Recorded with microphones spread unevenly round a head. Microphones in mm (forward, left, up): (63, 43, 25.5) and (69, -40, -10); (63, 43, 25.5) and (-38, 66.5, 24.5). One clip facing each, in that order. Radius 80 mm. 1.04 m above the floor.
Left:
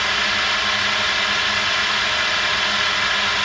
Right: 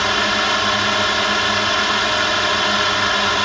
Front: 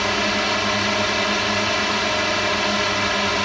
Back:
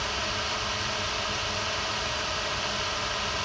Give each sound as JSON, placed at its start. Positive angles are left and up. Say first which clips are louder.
{"t": 0.0, "sound": "a drone", "louder": "right 4 dB, front 11 dB", "azimuth_deg": -45}